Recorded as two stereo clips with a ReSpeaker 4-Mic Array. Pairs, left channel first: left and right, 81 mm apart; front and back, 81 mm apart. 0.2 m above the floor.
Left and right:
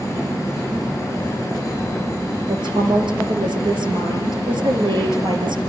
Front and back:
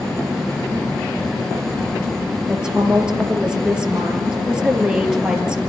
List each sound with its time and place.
2.5 s a woman speaking: 100° right, 4.5 m